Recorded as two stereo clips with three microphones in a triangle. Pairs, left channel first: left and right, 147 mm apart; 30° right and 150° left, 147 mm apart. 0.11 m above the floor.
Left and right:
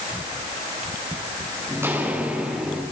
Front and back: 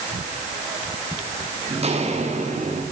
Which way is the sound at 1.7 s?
165° right.